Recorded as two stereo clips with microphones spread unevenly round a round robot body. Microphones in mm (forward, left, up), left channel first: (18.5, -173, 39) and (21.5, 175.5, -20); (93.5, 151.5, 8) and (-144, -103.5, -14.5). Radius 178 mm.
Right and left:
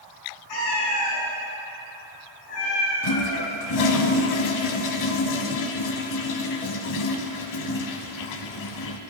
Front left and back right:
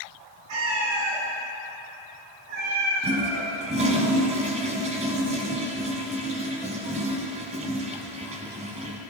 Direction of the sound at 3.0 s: 60° right.